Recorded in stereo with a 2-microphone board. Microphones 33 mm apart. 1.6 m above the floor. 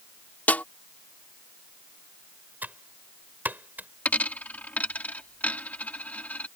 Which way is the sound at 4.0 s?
55° left (ahead or behind).